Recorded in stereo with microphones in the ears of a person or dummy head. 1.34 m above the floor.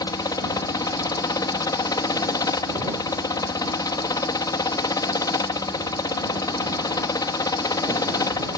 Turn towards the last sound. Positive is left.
turn(degrees=20)  # may be behind; listen again after turning